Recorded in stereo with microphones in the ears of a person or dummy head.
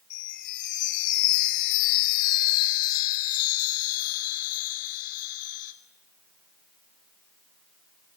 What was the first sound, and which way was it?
A chime, 45° left (ahead or behind).